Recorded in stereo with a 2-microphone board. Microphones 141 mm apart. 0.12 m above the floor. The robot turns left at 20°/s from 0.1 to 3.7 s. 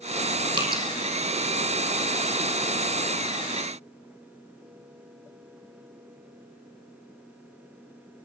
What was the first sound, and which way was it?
Dripping, 35° right (ahead or behind).